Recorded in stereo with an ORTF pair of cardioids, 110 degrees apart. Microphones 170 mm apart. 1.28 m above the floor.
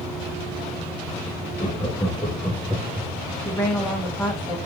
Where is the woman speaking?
10° left, 1.0 m.